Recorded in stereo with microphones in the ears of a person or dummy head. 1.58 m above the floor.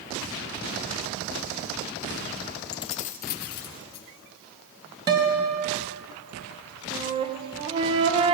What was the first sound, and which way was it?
Keys jangling, 25° left (ahead or behind).